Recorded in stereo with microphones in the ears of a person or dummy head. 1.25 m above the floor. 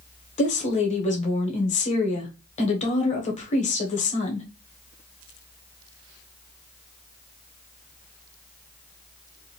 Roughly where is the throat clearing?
I don't hear throat clearing.